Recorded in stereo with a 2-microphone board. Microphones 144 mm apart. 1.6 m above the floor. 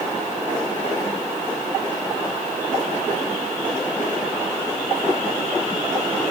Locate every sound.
Only background noise.